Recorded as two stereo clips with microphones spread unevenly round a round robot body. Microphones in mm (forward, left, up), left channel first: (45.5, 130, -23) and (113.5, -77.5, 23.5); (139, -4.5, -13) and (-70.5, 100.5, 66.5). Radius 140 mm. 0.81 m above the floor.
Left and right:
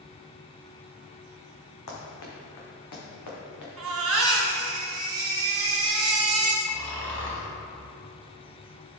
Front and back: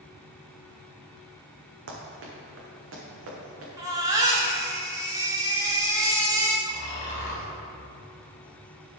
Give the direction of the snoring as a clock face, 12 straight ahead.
11 o'clock.